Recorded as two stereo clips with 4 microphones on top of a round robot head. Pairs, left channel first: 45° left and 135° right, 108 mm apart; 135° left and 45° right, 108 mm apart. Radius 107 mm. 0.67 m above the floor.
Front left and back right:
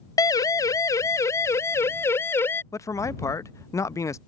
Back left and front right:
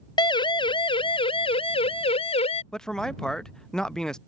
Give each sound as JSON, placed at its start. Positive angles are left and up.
{"t": 0.2, "sound": "a siren", "azimuth_deg": 95}
{"t": 2.7, "sound": "a man speaking", "azimuth_deg": 60}